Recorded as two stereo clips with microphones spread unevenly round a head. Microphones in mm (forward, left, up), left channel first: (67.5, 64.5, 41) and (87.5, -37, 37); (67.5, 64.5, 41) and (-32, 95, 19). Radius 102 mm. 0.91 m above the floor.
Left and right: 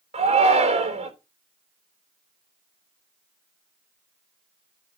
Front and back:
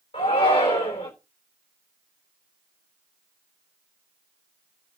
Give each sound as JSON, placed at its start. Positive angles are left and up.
{"t": 0.1, "sound": "a shout", "azimuth_deg": -75, "distance_m": 3.5}